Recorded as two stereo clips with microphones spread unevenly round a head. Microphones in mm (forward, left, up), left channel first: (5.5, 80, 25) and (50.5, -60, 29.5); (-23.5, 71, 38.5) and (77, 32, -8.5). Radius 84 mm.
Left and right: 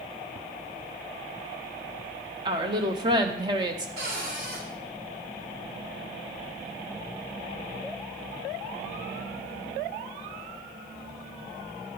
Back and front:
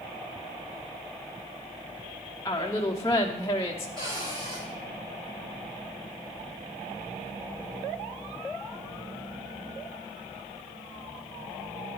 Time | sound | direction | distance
2.5 | a woman speaking | 135° right | 0.8 m
4.0 | a cupboard door | 100° right | 2.5 m